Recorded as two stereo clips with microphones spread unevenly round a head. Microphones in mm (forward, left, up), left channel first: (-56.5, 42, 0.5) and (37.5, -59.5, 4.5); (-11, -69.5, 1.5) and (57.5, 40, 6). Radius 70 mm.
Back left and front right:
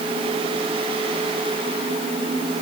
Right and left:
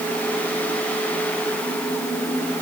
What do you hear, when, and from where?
Only background noise.